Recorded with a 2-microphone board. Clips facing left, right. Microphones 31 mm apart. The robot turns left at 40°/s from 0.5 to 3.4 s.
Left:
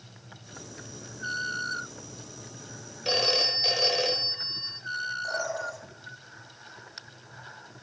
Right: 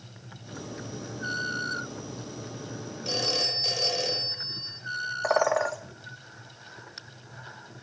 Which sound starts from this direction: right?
A bird, at 5.2 s.